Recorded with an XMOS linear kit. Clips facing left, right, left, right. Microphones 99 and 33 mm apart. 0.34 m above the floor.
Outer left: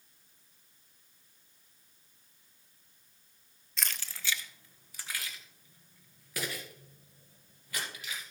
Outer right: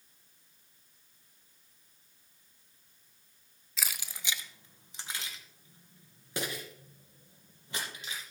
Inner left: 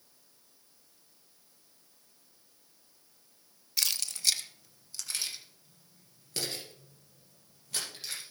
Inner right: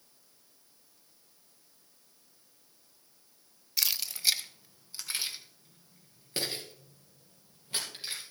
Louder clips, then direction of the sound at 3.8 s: Even, even; 5° right (ahead or behind).